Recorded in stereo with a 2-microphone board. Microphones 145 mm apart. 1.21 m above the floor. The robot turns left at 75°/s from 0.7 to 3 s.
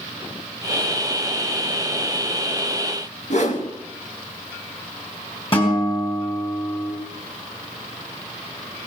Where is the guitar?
40° left (ahead or behind), 5.5 m.